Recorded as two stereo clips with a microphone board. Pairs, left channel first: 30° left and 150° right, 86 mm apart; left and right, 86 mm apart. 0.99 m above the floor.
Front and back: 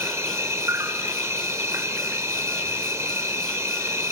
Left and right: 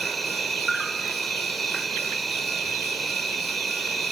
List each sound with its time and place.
0.0 s an insect: straight behind, 0.8 m